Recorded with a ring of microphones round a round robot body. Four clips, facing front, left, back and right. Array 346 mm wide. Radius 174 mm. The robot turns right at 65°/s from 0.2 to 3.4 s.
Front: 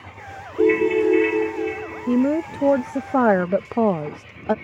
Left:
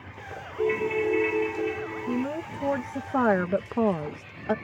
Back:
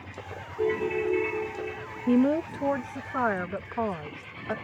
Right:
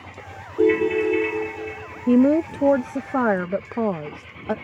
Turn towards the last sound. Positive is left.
turn(degrees=0)